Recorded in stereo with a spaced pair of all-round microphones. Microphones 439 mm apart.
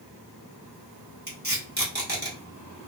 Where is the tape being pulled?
20° right (ahead or behind), 1.5 m.